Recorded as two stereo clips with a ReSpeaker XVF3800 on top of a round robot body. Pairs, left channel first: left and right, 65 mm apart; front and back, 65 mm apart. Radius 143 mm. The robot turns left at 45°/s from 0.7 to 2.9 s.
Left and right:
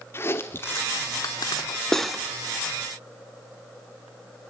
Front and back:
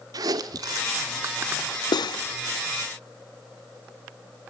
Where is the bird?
I don't hear a bird.